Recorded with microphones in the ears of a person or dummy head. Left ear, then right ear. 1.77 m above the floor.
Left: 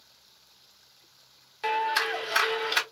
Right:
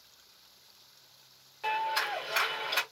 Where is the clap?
35° left (ahead or behind), 1.1 m.